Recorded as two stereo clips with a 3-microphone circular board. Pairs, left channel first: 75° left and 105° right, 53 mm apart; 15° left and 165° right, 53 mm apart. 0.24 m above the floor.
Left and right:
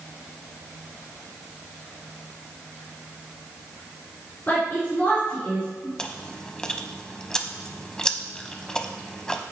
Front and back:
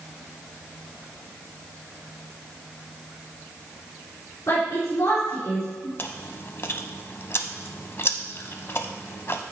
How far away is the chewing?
About 0.5 m.